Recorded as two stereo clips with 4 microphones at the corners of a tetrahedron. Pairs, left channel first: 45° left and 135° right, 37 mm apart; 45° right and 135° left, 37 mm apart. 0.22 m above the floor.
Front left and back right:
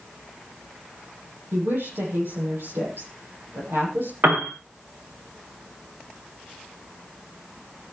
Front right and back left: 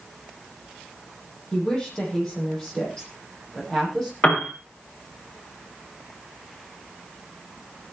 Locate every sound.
1.5 s a woman speaking: 110° right, 10 m; by 4.1 s 120° right, 9.5 m
4.2 s a piano: 100° right, 4 m